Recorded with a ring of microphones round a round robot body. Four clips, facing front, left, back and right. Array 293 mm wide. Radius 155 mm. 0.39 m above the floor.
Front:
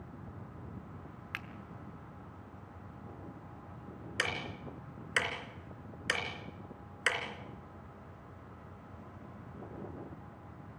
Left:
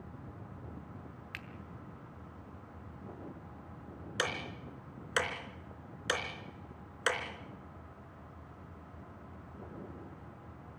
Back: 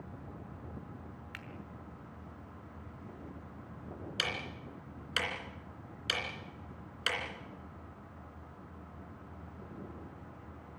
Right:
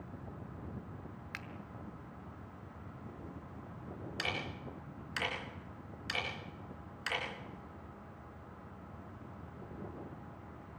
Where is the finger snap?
15° right, 1.0 m.